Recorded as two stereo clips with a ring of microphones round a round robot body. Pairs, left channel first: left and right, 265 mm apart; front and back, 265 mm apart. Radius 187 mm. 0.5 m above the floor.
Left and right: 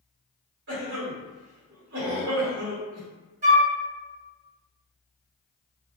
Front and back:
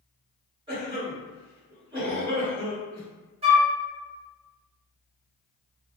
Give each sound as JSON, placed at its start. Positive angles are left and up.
{"t": 0.7, "sound": "a cough", "azimuth_deg": -115, "distance_m": 1.8}
{"t": 3.4, "sound": "a flute", "azimuth_deg": -130, "distance_m": 0.7}